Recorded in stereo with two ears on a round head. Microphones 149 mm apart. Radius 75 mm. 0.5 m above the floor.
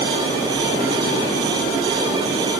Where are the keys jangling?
No keys jangling in this recording.